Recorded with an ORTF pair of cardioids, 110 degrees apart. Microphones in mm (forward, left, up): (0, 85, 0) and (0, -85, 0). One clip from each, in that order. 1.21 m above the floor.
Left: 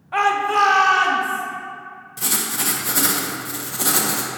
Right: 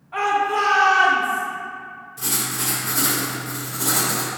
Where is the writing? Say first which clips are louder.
Left 2 dB; 45° left, 0.9 m.